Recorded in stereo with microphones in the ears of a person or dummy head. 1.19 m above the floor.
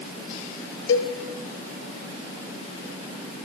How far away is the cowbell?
About 2 m.